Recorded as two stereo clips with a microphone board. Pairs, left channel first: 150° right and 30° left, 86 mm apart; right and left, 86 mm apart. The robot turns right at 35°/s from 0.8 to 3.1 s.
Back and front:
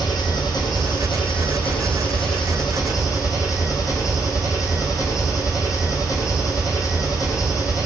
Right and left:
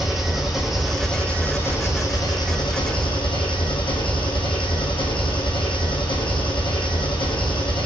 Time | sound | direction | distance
0.0 | an engine running | 175° left | 2.5 m